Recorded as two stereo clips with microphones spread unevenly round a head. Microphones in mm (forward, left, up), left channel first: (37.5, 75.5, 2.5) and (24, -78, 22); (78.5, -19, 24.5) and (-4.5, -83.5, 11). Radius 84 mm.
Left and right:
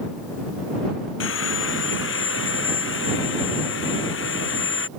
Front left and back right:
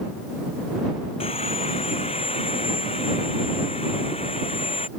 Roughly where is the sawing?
Left.